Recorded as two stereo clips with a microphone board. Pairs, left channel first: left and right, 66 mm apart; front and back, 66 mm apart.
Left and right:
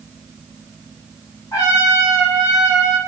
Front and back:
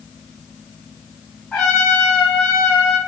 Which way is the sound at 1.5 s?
80° left.